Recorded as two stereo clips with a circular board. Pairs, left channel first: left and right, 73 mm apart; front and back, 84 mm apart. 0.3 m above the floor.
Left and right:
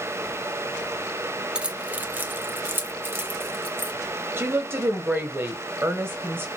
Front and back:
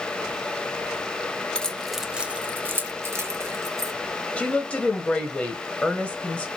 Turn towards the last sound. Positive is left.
turn(degrees=-65)